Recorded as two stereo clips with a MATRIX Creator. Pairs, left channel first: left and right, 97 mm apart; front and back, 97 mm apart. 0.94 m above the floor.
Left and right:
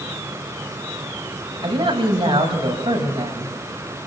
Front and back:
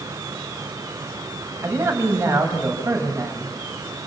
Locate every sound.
1.6 s a man speaking: 115° right, 6.5 m